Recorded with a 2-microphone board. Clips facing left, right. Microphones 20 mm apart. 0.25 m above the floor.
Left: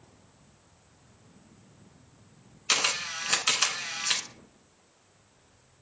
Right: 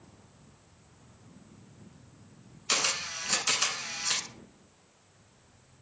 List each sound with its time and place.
2.7 s a camera shutter: 30° left (ahead or behind), 0.5 m